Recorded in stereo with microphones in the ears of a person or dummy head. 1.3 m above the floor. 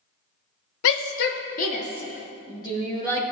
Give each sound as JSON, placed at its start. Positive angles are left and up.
{"t": 0.8, "sound": "a shout", "side_deg": 70, "distance_m": 0.9}